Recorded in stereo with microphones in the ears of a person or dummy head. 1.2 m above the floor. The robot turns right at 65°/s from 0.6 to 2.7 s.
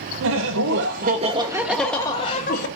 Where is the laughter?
75° right, 0.7 m; by 2.7 s 60° left, 0.7 m.